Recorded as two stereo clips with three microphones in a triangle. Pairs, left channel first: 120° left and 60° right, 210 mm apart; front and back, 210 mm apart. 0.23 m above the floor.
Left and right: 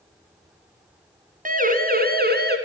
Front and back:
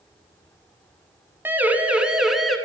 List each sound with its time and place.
1.4 s a siren: 100° right, 3 m; by 2.6 s 90° right, 3.5 m